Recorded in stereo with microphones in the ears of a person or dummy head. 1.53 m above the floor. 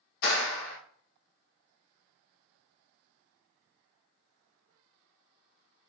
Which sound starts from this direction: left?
A clap, at 0.2 s.